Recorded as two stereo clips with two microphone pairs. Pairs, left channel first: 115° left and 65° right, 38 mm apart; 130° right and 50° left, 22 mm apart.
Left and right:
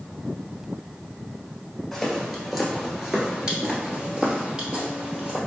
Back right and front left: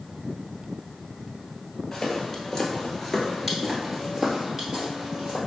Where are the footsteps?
160° right, 1.6 m; by 5.4 s straight ahead, 2 m.